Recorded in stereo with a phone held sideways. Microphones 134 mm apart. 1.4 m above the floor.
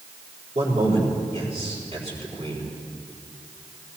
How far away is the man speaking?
About 4.5 m.